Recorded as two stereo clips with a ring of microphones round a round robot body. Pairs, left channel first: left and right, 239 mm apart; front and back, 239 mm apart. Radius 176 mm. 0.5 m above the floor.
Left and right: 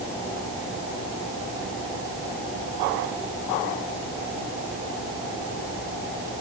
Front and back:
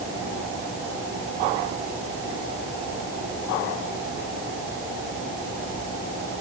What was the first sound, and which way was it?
Only background noise.